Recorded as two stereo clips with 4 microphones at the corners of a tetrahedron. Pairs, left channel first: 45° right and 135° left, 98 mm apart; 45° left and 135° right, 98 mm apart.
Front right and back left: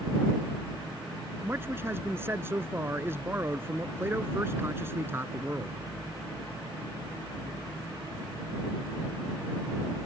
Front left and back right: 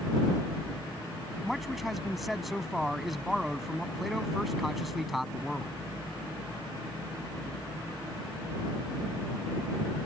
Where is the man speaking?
140° left.